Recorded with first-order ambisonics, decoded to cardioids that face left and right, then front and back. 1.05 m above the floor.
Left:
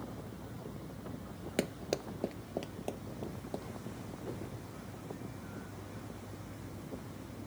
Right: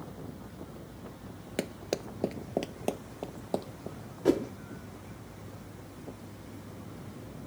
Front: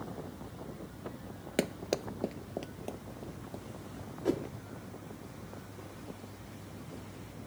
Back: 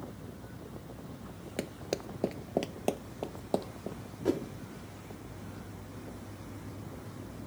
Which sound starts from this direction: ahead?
Running footsteps, at 1.6 s.